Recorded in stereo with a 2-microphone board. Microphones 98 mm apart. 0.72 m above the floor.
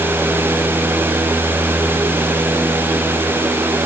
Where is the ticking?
I don't hear ticking.